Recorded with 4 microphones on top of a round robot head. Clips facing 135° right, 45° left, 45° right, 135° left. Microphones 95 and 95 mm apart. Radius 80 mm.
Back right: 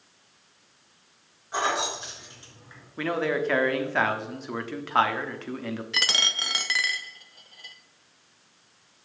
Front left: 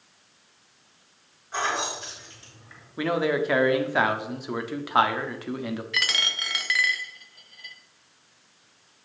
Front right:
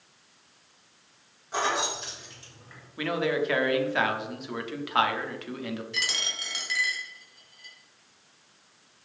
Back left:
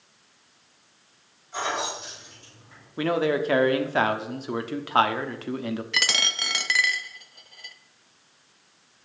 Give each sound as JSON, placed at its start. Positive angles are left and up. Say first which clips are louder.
{"t": 1.5, "sound": "keys jangling", "louder": "back right 1 dB, front right 1 dB", "azimuth_deg": -70, "distance_m": 5.0}
{"t": 3.0, "sound": "a man speaking", "louder": "front left 2 dB, back left 4 dB", "azimuth_deg": 115, "distance_m": 1.3}
{"t": 5.9, "sound": "a dropped coin", "louder": "even, back left 6 dB", "azimuth_deg": 160, "distance_m": 0.7}